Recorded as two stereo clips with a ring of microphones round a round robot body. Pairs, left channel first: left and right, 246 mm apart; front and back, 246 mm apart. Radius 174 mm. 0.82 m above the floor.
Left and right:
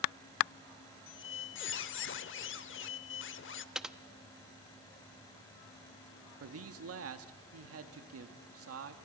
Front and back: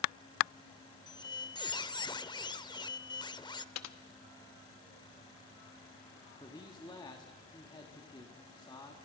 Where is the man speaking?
75° right, 1.4 m.